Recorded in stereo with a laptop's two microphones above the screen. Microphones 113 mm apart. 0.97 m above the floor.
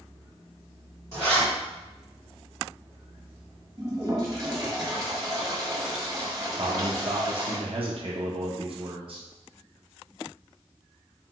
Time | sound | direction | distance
1.1 | a zipper | 20° left (ahead or behind) | 1.7 m
3.8 | a toilet flushing | 30° right (ahead or behind) | 0.9 m
6.6 | a man speaking | 55° right (ahead or behind) | 0.5 m